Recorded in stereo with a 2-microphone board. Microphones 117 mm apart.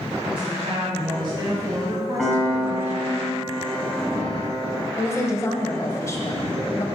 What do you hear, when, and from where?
0.3 s a woman speaking: 55° right (ahead or behind), 1.6 m; by 3.2 s 15° right (ahead or behind), 1.9 m
2.2 s a piano: centre (ahead or behind), 2.5 m
5.0 s a woman speaking: 25° left (ahead or behind), 1.1 m